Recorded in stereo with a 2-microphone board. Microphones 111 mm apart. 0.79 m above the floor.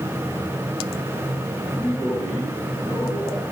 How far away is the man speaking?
About 10 m.